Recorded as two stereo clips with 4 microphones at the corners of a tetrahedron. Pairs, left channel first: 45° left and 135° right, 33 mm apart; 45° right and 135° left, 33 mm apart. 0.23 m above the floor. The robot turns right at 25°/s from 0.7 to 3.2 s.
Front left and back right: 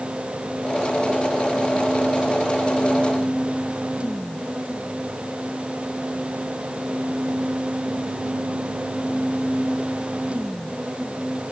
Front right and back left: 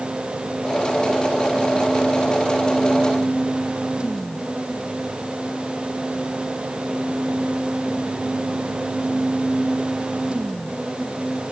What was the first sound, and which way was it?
Only background noise.